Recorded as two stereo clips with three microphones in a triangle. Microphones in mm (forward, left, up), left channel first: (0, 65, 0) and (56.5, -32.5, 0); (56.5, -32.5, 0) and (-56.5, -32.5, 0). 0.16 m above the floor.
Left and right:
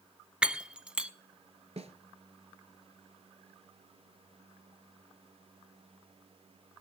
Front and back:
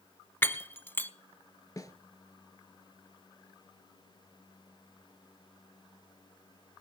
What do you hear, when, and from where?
0.4 s breaking glass: straight ahead, 0.5 m
1.8 s a snare drum: 55° right, 1.0 m